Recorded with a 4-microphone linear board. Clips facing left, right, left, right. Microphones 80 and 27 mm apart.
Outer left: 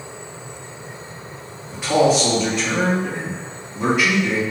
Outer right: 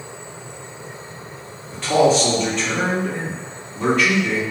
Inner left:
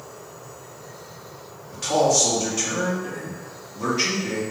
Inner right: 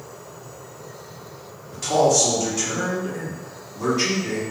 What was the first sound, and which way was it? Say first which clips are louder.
A man speaking: outer right 1 dB, inner right 1 dB; 10° left (ahead or behind).